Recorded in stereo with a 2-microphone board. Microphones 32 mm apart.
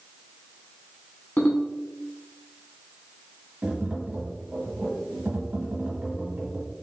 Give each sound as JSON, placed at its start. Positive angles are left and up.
{"t": 1.4, "sound": "a ringtone", "side_deg": 70, "distance_m": 1.5}
{"t": 3.6, "sound": "tapping", "side_deg": -60, "distance_m": 1.4}